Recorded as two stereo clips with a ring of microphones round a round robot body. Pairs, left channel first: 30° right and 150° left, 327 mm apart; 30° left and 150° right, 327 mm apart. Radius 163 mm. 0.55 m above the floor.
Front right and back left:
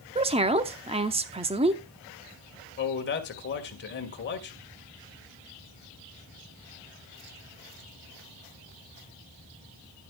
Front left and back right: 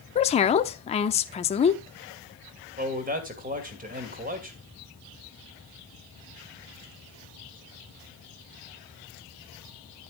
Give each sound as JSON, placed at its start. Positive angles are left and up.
{"t": 0.1, "sound": "a woman speaking", "azimuth_deg": 90, "distance_m": 0.8}
{"t": 2.8, "sound": "a man speaking", "azimuth_deg": -85, "distance_m": 2.0}